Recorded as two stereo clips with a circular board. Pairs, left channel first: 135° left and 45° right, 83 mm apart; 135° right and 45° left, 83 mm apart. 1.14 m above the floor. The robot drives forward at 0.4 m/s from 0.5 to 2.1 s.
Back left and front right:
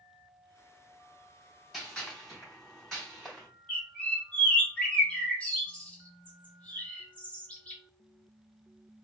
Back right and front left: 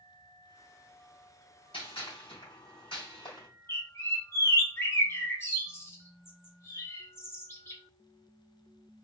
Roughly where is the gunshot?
Behind right.